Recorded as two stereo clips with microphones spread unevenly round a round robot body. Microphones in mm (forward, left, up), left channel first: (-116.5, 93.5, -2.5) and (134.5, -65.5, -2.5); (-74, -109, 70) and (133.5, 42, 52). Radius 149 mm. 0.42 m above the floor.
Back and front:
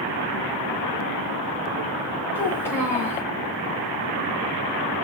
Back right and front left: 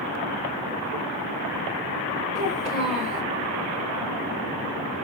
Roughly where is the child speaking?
Ahead left.